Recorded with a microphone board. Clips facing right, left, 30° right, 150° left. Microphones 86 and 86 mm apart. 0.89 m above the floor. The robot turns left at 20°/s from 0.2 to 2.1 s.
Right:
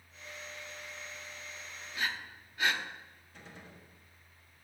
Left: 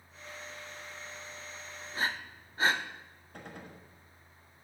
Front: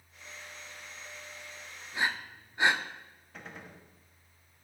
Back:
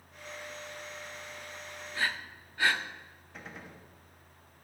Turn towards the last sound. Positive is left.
turn(degrees=60)